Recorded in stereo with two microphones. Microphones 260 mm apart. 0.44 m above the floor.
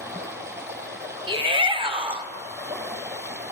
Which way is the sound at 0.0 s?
10° right (ahead or behind).